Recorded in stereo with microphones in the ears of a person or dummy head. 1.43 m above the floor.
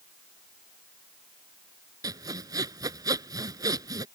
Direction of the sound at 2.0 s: 20° right (ahead or behind).